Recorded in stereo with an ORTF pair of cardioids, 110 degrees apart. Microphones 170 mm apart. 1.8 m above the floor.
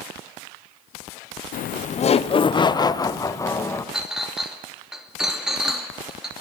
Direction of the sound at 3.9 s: Straight ahead.